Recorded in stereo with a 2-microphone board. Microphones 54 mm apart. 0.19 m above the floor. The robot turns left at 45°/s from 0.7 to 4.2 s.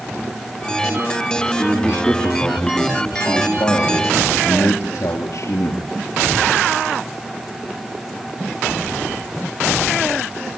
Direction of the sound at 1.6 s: Straight behind.